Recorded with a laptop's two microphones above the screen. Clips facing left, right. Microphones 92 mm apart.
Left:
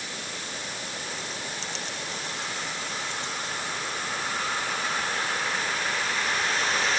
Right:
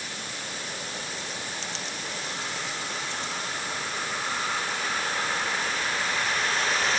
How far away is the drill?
I don't hear a drill.